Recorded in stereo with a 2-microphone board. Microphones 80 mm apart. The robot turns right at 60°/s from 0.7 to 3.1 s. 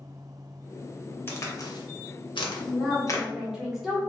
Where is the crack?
30° left (ahead or behind), 0.7 m; by 3.2 s 40° left (ahead or behind), 0.7 m.